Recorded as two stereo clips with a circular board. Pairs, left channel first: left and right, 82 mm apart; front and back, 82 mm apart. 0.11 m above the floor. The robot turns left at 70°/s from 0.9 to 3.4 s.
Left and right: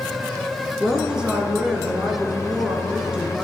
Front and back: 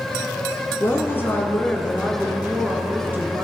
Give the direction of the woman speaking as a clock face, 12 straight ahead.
12 o'clock.